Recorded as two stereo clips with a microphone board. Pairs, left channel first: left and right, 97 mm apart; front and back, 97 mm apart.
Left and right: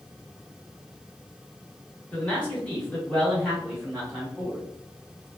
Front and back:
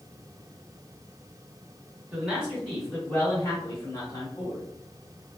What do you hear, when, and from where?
2.1 s a man speaking: 140° left, 1.3 m; by 4.6 s 5° right, 1.6 m